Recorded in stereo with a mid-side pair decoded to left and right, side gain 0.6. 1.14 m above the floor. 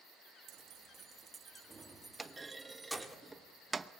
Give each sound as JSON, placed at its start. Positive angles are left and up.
{"t": 0.5, "sound": "keys jangling", "azimuth_deg": -60, "distance_m": 1.0}
{"t": 2.2, "sound": "a clunk", "azimuth_deg": -20, "distance_m": 0.9}